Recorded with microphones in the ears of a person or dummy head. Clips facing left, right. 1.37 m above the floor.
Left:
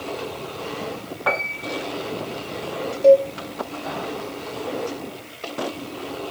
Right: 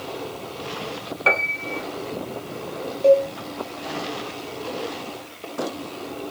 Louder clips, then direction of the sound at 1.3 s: Even; 40° right (ahead or behind).